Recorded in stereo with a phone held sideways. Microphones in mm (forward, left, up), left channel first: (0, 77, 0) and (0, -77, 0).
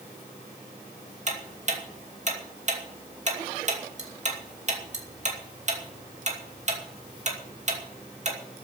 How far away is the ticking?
About 2.5 m.